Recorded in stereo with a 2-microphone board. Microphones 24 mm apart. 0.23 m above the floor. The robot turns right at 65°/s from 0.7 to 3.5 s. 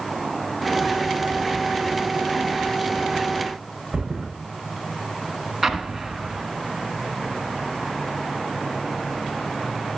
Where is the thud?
25° right (ahead or behind), 5.5 m.